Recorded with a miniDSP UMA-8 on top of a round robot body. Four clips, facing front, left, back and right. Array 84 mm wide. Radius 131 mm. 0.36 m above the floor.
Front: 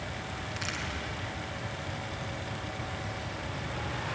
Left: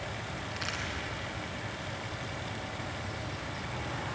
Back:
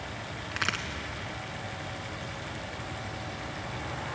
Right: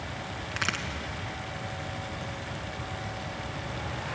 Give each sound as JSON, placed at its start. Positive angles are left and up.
{"t": 0.5, "sound": "a crack", "azimuth_deg": -140, "distance_m": 2.5}